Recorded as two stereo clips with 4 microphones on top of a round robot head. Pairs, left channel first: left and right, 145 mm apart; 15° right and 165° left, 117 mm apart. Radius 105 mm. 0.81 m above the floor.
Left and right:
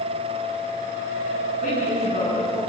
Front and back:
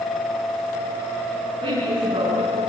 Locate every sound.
1.6 s a woman speaking: 125° left, 9.5 m